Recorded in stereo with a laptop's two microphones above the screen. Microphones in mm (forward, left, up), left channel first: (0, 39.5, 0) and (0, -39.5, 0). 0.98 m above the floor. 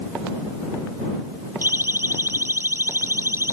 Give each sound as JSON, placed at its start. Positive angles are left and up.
{"t": 1.6, "sound": "a siren", "side_deg": -30}